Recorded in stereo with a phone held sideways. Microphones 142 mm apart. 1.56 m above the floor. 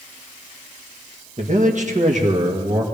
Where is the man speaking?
55° right (ahead or behind), 1.7 m; by 2.8 s 65° right (ahead or behind), 2.5 m.